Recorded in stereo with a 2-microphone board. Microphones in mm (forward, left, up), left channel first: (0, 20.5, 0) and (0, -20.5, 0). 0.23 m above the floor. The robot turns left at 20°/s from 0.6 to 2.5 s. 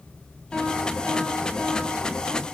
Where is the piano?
45° left, 1.6 m; by 2.5 s 10° left, 1.6 m.